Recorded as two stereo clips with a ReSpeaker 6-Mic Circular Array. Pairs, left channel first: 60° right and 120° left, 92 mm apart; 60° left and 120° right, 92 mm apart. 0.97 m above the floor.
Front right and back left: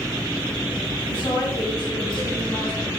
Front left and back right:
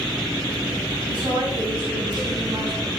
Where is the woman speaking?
90° right, 7 m.